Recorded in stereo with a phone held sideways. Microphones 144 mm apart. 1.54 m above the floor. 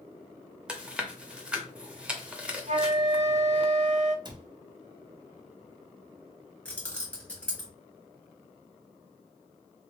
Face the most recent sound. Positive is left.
turn(degrees=10)  # may be behind; listen again after turning